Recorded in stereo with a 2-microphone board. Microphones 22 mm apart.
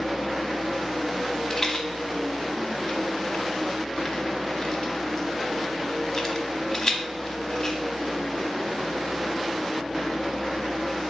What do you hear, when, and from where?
1.5 s a rattle: 30° left (ahead or behind), 0.8 m